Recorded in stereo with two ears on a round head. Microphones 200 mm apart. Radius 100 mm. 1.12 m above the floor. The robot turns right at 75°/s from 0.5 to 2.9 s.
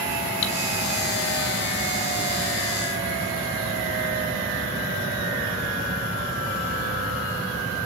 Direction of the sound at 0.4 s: 30° left (ahead or behind).